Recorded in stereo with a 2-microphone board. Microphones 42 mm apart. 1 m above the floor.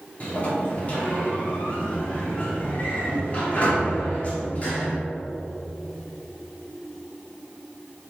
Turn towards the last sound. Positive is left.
turn(degrees=35)  # may be behind; listen again after turning